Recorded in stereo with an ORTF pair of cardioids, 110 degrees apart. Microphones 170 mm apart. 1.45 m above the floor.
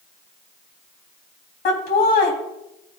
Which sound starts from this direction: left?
Laughter, at 1.6 s.